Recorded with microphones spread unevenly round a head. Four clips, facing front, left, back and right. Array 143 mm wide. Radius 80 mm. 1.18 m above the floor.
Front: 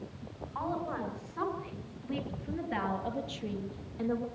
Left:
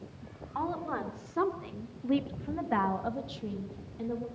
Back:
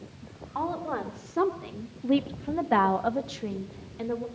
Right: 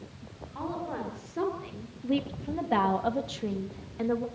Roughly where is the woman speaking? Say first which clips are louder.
Left 1 dB, back 4 dB; behind left.